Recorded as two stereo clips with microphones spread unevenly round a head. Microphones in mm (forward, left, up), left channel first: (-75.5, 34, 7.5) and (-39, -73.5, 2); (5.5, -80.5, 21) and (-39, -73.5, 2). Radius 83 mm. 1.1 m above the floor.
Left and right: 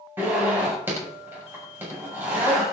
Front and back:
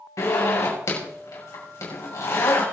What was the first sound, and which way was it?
A zipper, 5° left.